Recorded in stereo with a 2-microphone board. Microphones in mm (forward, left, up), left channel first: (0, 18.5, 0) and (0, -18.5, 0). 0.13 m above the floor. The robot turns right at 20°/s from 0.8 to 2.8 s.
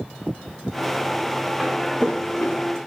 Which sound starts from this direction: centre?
Footsteps, at 1.6 s.